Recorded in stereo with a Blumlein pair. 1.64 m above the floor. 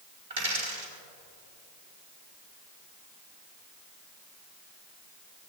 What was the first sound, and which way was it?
A dropped coin, 65° right.